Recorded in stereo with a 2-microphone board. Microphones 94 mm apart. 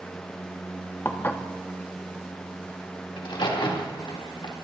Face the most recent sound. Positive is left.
turn(degrees=65)  # may be behind; listen again after turning